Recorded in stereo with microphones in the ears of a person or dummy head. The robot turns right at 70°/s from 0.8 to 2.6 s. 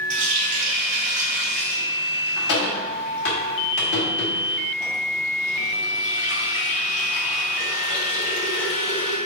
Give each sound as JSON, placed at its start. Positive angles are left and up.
{"t": 0.1, "sound": "a running tap", "side_deg": -40, "distance_m": 1.5}